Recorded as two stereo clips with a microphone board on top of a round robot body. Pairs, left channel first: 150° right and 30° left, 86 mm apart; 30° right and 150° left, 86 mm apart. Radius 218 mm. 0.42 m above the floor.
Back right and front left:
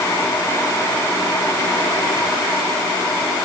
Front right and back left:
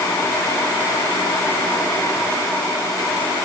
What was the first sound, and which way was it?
Only background noise.